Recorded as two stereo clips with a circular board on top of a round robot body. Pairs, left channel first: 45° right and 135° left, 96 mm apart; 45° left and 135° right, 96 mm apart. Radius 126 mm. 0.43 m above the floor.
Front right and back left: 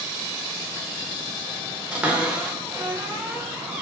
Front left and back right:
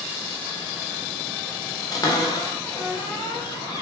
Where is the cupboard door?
60° left, 0.8 m.